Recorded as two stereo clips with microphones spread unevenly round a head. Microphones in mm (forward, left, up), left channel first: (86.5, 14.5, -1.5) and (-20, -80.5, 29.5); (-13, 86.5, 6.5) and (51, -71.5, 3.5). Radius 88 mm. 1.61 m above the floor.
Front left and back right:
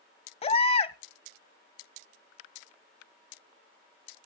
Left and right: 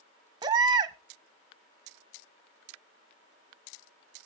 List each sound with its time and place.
0.4 s a baby crying: 5° right, 0.9 m